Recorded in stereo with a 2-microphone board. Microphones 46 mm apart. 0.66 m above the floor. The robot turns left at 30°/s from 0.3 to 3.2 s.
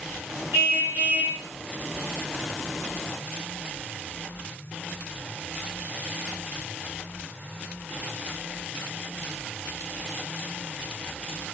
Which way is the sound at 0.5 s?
60° right (ahead or behind).